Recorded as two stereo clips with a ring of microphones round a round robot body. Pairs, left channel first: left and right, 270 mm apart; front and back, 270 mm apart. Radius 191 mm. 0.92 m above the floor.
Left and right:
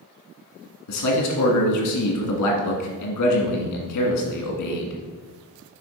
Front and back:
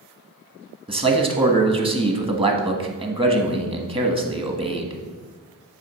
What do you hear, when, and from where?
0.9 s a man speaking: 110° left, 1.5 m